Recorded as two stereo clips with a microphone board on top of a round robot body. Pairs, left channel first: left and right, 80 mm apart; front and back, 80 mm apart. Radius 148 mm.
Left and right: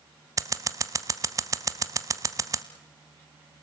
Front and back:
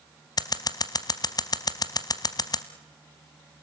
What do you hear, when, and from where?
0.4 s scissors: 40° right, 0.8 m